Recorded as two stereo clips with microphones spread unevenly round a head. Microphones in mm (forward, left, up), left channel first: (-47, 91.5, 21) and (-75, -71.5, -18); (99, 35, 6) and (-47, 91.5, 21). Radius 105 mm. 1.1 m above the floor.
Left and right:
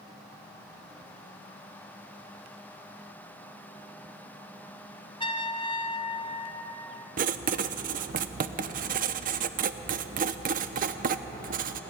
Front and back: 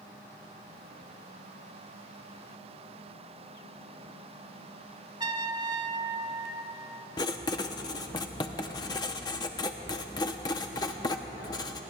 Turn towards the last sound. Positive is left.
turn(degrees=-80)